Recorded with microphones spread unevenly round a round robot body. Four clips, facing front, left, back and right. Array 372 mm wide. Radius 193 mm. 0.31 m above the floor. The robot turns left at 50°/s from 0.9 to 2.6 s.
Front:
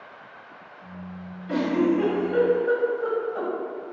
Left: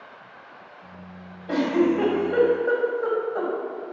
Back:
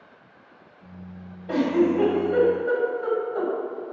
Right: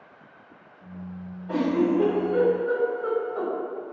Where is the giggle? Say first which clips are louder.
Left 2 dB, back 1 dB; 130° left, 1.4 m; by 3.5 s 75° left, 1.4 m.